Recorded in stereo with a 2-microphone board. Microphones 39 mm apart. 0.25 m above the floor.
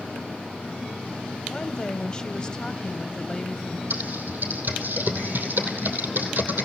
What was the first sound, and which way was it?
A woman speaking, 25° left (ahead or behind).